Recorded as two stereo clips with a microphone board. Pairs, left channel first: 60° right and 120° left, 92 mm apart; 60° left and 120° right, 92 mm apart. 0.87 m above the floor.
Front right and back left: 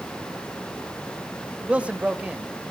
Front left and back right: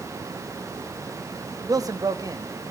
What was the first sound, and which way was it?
A man speaking, 165° right.